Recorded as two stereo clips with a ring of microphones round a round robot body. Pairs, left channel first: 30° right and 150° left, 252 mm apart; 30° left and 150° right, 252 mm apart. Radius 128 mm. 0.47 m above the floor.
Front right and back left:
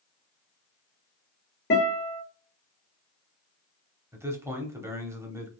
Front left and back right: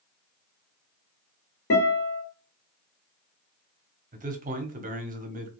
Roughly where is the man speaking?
Behind right.